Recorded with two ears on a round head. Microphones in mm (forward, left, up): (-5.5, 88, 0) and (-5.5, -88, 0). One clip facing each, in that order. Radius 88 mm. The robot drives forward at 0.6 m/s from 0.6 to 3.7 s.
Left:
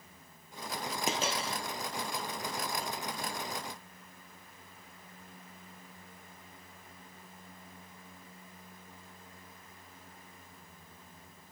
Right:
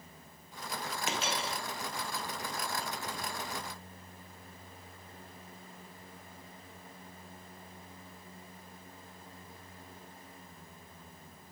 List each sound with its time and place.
1.1 s a dropped coin: 35° left (ahead or behind), 1.5 m